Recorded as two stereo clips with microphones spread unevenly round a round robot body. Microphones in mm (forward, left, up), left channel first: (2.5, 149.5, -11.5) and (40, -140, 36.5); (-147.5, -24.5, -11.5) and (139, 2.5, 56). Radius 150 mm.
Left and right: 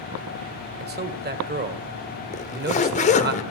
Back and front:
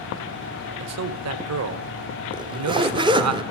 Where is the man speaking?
25° right, 1.6 m.